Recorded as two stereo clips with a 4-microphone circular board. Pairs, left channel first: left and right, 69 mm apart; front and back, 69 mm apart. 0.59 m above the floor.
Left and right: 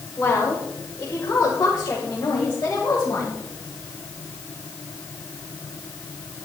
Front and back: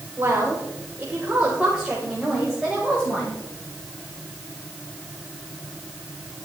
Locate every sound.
0.2 s a woman speaking: 125° left, 2.5 m; by 3.4 s 75° left, 3 m